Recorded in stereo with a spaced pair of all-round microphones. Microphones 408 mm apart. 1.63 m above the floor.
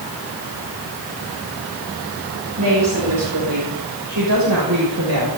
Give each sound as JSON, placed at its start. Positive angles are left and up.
{"t": 2.6, "sound": "a woman speaking", "side_deg": -50, "distance_m": 8.0}